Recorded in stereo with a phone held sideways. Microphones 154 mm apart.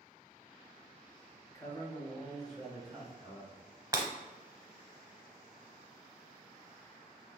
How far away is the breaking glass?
About 0.8 m.